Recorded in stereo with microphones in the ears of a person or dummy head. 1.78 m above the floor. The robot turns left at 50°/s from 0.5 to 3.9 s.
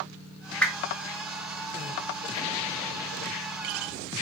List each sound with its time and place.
0.6 s a whoosh: 5° left (ahead or behind), 0.8 m; by 0.9 s 20° left (ahead or behind), 0.8 m